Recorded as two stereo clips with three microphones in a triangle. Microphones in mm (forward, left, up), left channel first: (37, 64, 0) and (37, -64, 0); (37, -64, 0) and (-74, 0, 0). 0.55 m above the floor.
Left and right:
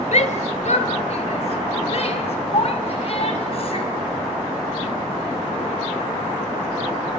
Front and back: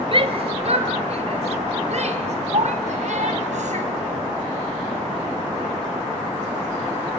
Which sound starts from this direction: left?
A shout, at 0.1 s.